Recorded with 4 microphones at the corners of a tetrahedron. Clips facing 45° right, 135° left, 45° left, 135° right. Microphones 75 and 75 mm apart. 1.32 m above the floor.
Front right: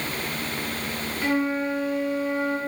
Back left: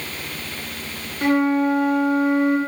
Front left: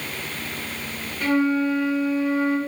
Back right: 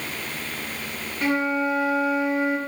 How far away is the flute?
About 1.0 m.